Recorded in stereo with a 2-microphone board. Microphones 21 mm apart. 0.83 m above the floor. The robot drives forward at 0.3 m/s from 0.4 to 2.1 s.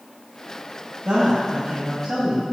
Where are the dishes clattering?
No dishes clattering in this recording.